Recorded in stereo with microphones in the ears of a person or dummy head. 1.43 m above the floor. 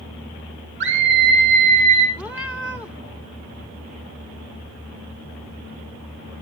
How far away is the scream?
About 1.7 m.